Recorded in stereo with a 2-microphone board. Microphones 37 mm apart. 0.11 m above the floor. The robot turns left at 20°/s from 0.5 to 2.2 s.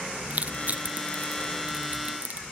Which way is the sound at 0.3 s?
45° right (ahead or behind).